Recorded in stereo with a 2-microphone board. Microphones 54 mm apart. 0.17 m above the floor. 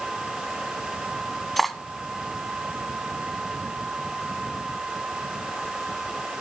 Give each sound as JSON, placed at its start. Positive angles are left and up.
{"t": 1.6, "sound": "cutlery clinking", "side_deg": 5, "distance_m": 0.8}